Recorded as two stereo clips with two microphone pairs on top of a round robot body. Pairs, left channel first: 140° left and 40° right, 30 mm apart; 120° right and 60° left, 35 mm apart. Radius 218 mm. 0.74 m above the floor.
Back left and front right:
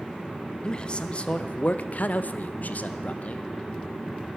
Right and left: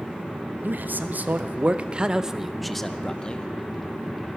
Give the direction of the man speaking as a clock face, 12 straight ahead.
10 o'clock.